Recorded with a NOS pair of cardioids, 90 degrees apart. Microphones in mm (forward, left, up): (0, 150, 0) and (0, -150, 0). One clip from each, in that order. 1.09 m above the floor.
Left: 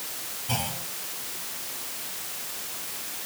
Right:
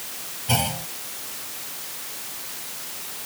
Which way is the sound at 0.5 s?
45° right.